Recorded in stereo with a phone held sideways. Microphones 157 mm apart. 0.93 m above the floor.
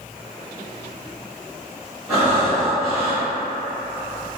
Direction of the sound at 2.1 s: 5° right (ahead or behind).